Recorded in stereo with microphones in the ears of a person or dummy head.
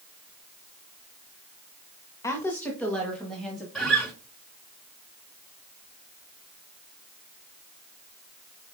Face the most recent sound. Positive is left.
turn(degrees=5)  # may be behind; listen again after turning